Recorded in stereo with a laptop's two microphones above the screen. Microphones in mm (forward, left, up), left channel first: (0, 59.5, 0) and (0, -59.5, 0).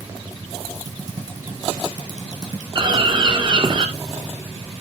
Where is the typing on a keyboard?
30° right (ahead or behind), 2.5 m.